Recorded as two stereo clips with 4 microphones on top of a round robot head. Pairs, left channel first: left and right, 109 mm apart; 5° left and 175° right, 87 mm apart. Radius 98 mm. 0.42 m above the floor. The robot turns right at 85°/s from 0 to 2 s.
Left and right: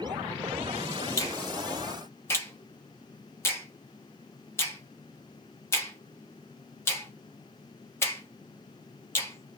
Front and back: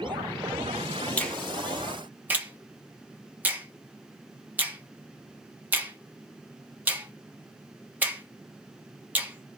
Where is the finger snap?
65° left, 1.1 m; by 9.6 s 135° left, 1.1 m.